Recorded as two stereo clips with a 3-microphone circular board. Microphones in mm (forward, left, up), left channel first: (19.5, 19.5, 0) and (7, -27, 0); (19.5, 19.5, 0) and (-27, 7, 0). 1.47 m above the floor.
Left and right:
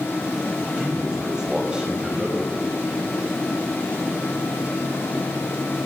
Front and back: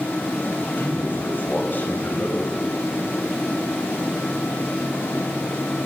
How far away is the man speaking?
About 7 m.